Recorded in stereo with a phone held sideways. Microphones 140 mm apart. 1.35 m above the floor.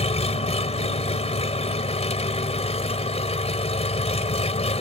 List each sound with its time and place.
0.0 s an engine running: 45° left (ahead or behind)